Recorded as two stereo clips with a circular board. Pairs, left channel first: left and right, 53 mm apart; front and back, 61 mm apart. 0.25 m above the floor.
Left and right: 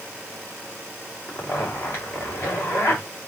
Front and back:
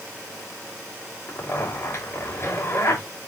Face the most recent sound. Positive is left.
turn(degrees=55)